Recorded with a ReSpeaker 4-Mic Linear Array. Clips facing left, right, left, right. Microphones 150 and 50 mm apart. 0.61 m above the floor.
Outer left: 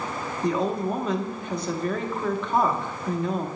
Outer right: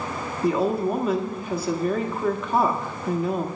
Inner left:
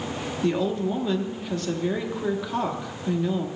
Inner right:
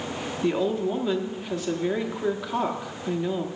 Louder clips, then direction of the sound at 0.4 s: Outer right 3 dB, even; 5° right (ahead or behind).